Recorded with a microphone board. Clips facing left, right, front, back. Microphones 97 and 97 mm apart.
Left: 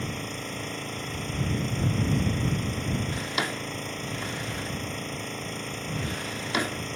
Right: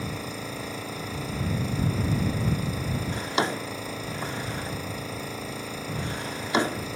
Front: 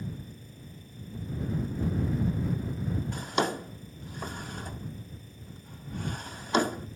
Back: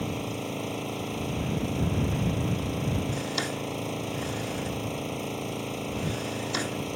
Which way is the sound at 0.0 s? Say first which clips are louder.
Right 1 dB, back 11 dB; 175° right.